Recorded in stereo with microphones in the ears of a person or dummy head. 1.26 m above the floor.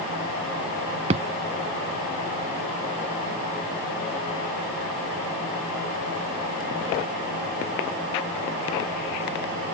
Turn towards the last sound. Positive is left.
turn(degrees=-35)  # may be behind; listen again after turning